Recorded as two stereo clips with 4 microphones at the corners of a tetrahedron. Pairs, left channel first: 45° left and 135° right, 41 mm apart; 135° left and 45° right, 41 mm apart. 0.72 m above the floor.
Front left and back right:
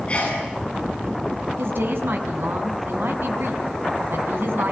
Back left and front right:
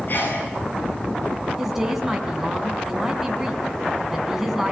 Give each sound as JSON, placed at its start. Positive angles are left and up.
{"t": 0.1, "sound": "a sneeze", "azimuth_deg": 105, "distance_m": 8.0}
{"t": 1.6, "sound": "a woman speaking", "azimuth_deg": -125, "distance_m": 5.5}